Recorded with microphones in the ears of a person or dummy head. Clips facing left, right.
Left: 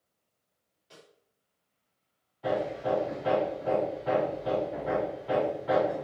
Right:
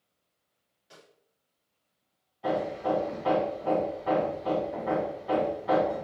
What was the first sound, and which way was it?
A snare drum, 10° right (ahead or behind).